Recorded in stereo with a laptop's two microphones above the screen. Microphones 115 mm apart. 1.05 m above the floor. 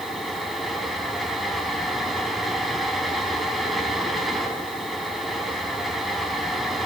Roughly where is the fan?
Centre.